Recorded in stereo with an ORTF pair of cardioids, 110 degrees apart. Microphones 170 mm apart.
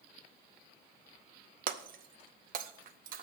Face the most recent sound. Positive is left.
turn(degrees=-55)